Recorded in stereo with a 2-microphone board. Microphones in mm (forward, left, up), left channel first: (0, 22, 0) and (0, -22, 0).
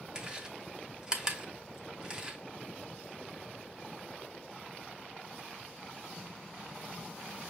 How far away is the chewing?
About 0.7 m.